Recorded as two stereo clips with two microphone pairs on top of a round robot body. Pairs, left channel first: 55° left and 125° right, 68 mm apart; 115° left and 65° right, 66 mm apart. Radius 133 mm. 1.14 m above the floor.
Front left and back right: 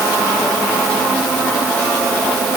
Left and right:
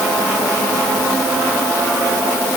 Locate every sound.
Only background noise.